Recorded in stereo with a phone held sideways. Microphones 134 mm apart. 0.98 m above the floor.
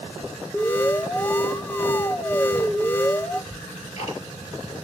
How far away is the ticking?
About 3.5 m.